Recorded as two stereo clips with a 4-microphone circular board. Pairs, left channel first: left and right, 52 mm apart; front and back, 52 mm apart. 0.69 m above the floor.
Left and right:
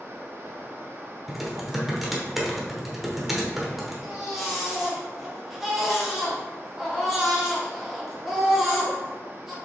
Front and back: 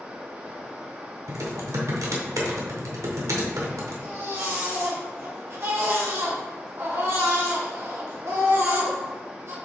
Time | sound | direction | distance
0.0 | running water | 115° right | 0.7 m
1.3 | typing on a keyboard | 175° right | 0.9 m
4.0 | a baby crying | 175° right | 1.2 m